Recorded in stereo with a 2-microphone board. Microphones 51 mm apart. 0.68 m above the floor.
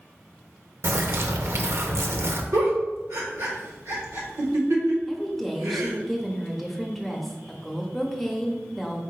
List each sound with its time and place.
0.8 s a bird: 60° right (ahead or behind), 0.5 m
2.5 s a giggle: 75° right (ahead or behind), 1.1 m
5.1 s a woman speaking: 5° left (ahead or behind), 0.7 m